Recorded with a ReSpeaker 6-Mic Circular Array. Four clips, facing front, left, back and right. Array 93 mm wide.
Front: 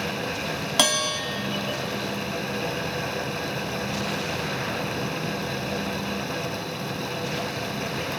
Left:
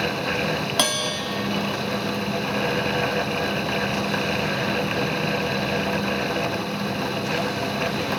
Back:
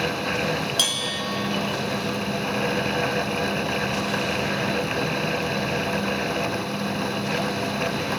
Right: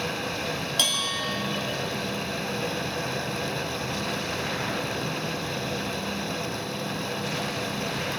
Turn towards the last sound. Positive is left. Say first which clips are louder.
# left 6 dB, front 4 dB
turn(degrees=40)